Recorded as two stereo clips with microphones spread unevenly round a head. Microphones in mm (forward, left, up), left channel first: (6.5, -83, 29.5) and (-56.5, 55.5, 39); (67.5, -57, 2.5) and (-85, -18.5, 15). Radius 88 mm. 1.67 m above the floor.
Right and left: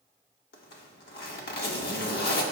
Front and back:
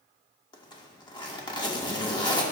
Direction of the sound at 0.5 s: 75° right.